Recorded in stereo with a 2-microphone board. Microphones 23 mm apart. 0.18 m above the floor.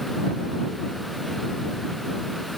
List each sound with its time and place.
Only background noise.